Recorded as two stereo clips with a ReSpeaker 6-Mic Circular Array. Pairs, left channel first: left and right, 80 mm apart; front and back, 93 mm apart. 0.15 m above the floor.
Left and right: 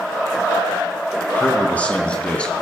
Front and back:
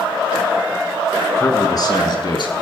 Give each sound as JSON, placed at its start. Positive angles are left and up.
{"t": 1.4, "sound": "a man speaking", "azimuth_deg": 35, "distance_m": 1.6}